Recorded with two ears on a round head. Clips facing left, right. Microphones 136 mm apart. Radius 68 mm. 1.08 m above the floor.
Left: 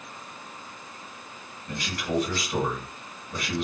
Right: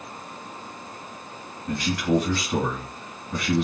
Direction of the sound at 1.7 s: 65° right (ahead or behind).